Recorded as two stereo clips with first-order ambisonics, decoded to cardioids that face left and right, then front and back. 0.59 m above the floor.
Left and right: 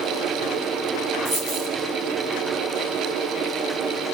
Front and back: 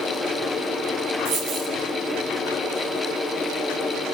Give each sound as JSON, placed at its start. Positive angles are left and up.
{"t": 1.2, "sound": "a dropped coin", "azimuth_deg": -135, "distance_m": 6.0}